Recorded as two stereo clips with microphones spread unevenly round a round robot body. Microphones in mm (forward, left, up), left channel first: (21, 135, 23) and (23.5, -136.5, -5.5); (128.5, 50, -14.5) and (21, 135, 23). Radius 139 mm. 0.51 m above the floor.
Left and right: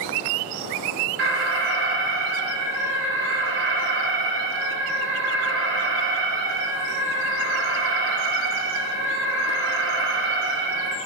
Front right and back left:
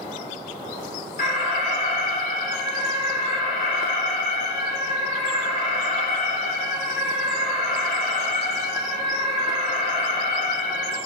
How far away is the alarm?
About 3 m.